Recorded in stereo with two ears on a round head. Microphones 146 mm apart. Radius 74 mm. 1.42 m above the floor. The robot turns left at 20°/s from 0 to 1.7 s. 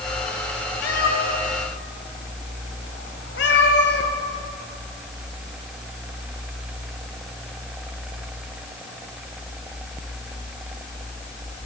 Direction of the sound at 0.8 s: 70° left (ahead or behind).